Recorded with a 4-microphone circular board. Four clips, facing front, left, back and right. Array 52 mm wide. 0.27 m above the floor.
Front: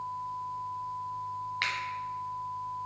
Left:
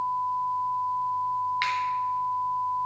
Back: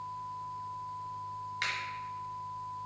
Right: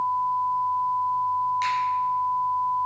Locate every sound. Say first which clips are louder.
1.6 s a finger snap: right 2 dB, front 3 dB; 50° left, 1.5 m